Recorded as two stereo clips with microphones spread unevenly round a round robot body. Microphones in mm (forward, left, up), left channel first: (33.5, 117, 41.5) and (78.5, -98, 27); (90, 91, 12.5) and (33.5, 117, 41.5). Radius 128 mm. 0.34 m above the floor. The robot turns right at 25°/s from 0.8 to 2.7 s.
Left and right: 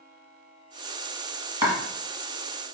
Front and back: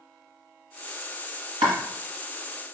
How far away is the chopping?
About 0.9 m.